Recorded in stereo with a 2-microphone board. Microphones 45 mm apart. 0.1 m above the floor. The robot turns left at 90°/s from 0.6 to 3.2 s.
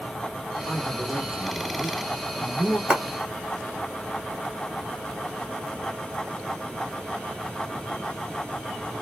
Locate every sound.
0.7 s a man speaking: 20° left (ahead or behind), 1.4 m; by 2.8 s 20° right (ahead or behind), 1.4 m
2.9 s a clap: 20° right (ahead or behind), 1.5 m; by 3.0 s 25° right (ahead or behind), 1.5 m